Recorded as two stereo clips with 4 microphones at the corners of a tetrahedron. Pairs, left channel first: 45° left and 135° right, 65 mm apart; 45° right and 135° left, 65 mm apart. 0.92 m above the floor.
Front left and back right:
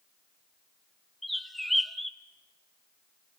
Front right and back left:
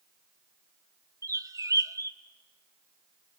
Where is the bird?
135° left, 0.7 m.